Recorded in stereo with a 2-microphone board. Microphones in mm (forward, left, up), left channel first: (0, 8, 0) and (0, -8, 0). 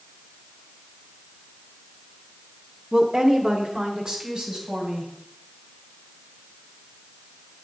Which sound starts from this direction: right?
A woman speaking, at 2.9 s.